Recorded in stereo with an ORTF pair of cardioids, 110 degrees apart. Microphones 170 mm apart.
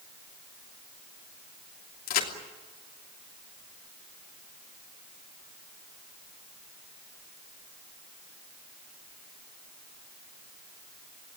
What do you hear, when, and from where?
2.1 s a crack: 60° left, 3 m